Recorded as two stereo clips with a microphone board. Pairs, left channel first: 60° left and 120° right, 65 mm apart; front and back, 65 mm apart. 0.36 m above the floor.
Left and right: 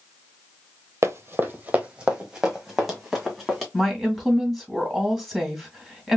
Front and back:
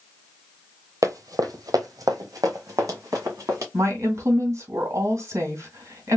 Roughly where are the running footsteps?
Behind.